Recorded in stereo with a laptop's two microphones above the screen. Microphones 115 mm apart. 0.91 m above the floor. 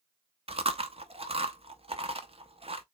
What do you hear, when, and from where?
0.5 s chewing: 55° right (ahead or behind), 0.7 m